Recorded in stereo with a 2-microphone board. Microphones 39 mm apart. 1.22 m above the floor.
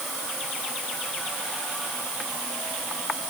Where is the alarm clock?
No alarm clock in this recording.